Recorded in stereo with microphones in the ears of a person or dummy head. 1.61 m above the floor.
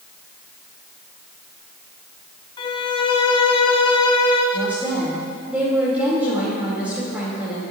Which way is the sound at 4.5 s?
10° right (ahead or behind).